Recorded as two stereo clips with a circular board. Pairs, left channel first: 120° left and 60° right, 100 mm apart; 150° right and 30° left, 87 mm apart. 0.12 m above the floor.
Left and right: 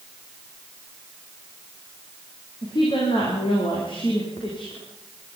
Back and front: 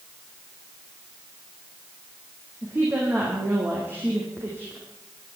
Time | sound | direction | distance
2.6 | a woman speaking | 95° left | 6.5 m